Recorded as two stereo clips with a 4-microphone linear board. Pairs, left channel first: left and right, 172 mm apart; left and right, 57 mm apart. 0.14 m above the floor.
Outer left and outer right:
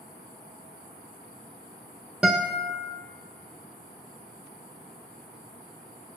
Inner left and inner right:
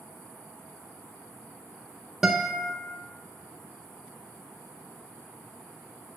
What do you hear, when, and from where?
2.2 s a guitar: 5° right (ahead or behind), 0.8 m